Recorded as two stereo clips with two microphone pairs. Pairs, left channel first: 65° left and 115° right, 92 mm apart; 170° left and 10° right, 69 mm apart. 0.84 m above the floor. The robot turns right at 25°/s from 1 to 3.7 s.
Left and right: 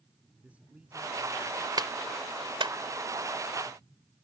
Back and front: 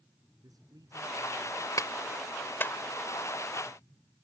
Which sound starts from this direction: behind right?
A clap, at 1.8 s.